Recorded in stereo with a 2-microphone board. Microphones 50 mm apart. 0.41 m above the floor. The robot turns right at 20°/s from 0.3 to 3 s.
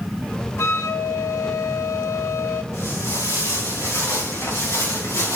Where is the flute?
70° left, 0.6 m; by 2.6 s 110° left, 0.6 m.